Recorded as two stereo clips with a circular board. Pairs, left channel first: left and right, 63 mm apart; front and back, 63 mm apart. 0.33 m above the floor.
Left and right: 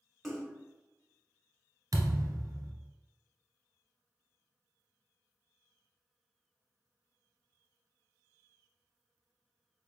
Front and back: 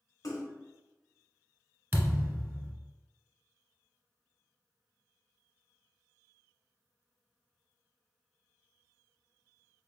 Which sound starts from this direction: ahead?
A splash, at 0.2 s.